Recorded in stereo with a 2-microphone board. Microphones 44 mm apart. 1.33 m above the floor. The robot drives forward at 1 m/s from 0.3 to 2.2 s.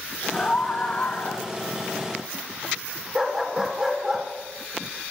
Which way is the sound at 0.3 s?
35° left (ahead or behind).